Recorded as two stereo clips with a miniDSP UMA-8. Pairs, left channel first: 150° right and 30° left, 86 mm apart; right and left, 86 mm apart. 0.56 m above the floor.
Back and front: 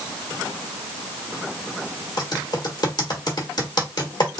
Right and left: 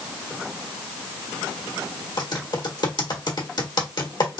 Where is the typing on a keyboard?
120° right, 1.4 m.